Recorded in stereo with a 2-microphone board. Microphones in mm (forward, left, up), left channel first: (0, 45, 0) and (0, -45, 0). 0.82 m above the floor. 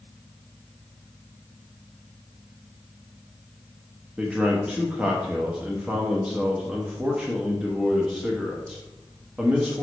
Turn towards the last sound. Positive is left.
turn(degrees=-15)  # may be behind; listen again after turning